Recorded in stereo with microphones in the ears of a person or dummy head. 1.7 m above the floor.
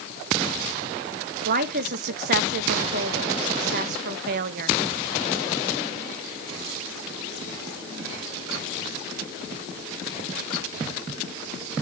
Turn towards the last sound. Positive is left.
turn(degrees=-50)  # may be behind; listen again after turning